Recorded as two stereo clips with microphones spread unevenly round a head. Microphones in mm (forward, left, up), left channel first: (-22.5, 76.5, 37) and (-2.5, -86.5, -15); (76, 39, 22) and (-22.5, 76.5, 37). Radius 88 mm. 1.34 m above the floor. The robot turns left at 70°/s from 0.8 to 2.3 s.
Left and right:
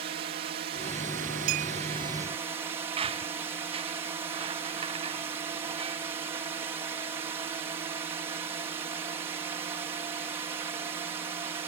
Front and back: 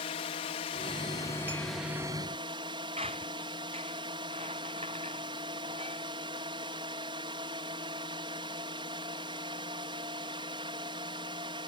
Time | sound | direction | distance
0.0 | a drone | 45° right | ?
1.5 | a clink | 125° right | ?
3.0 | a squeak | 140° right | ?